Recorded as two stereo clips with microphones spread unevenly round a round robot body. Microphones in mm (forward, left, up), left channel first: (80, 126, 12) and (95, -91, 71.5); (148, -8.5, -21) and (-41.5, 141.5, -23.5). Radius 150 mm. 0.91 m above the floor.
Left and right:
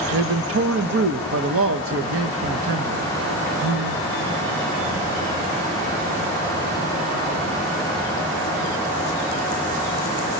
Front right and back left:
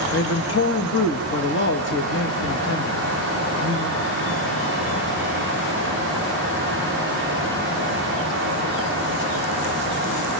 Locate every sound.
0.1 s a man speaking: 75° right, 1.4 m